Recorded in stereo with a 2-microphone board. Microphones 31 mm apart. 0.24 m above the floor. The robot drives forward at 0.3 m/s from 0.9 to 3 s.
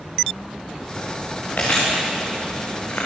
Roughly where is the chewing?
Left.